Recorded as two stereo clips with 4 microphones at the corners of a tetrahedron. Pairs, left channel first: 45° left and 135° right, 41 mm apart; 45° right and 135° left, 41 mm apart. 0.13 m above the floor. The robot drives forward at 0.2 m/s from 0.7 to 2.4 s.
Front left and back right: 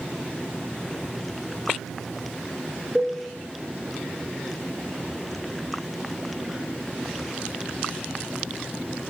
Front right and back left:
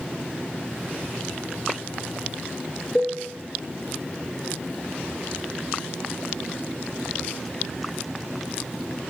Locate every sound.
3.0 s a cowbell: 85° right, 0.7 m